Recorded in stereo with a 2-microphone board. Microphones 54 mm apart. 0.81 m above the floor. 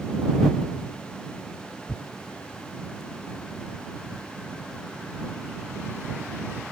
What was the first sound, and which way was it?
Tearing paper, 50° left (ahead or behind).